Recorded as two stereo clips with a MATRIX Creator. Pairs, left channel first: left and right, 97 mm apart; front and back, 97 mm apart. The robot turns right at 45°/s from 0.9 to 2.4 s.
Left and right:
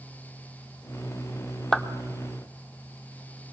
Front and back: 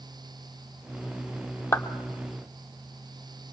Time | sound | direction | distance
1.7 | a clap | 10° left | 0.8 m